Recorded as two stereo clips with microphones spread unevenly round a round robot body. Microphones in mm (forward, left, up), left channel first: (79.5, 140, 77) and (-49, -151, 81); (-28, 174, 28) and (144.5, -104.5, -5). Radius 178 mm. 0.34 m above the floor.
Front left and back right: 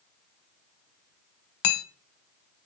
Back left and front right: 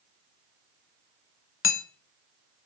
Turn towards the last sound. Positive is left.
turn(degrees=65)